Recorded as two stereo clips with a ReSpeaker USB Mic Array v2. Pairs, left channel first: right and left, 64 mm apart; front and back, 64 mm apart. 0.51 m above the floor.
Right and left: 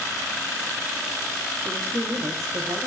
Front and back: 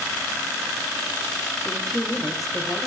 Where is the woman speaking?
75° left, 1.1 m; by 2.9 s 85° left, 1.7 m.